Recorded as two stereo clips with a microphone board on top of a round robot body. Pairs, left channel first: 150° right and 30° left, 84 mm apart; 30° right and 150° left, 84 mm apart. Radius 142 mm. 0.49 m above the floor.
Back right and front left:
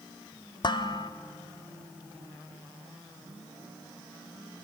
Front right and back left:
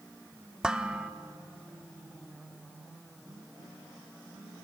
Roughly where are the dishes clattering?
Behind right.